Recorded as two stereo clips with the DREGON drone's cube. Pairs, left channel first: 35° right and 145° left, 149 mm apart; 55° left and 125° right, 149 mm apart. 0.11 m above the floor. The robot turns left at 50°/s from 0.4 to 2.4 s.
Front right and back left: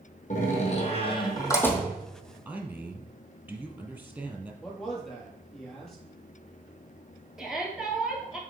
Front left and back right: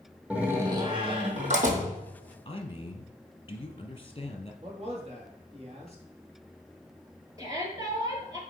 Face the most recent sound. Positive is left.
turn(degrees=-130)